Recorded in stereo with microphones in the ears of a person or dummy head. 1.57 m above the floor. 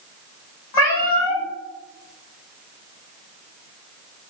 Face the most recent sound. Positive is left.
turn(degrees=15)  # may be behind; listen again after turning